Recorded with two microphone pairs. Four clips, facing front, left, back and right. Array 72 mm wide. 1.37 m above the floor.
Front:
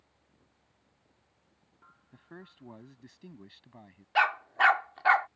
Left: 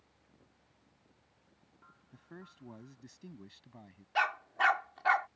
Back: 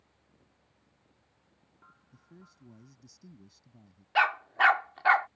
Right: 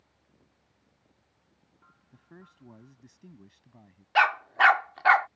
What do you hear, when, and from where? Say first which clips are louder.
2.1 s a man speaking: left 1 dB, front 9 dB; 5° left; by 4.0 s 10° left
4.2 s a dog barking: right 9 dB, even; 90° right